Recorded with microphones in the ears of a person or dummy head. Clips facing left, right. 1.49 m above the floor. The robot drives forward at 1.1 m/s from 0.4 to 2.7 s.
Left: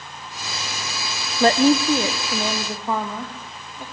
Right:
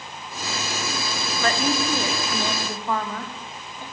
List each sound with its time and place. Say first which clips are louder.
1.4 s a woman speaking: left 9 dB; 30° left (ahead or behind), 0.7 m; by 3.8 s 10° left (ahead or behind), 2 m